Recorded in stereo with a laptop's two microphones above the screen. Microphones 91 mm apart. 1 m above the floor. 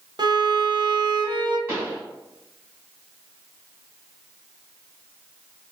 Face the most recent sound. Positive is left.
turn(degrees=-30)  # may be behind; listen again after turning